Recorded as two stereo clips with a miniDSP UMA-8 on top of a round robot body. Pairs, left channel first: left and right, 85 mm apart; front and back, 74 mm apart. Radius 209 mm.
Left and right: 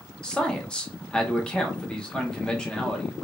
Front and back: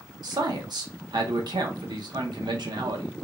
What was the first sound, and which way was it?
A man speaking, 170° left.